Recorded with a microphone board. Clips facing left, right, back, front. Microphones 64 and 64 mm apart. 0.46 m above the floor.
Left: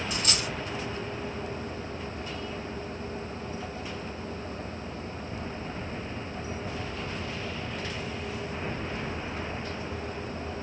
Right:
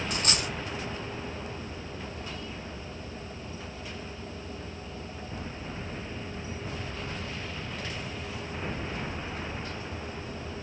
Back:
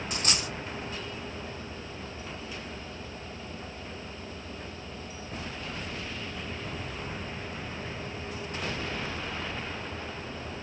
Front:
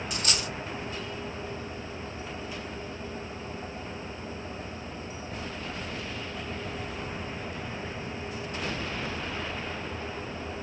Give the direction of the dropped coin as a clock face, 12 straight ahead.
4 o'clock.